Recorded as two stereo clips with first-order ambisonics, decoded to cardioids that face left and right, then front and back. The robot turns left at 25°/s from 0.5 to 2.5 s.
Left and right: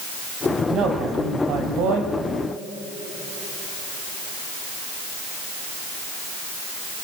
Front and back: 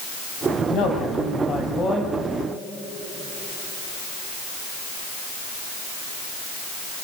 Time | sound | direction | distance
0.7 | a man speaking | 35° right | 5.5 m